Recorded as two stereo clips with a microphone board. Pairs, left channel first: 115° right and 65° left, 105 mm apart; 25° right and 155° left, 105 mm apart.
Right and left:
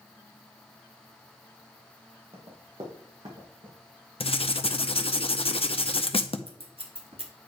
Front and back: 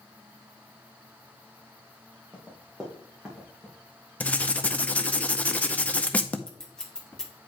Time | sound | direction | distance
2.3 | running footsteps | 75° left | 2.5 m
4.2 | writing | 100° right | 0.5 m
6.5 | scissors | 60° left | 1.2 m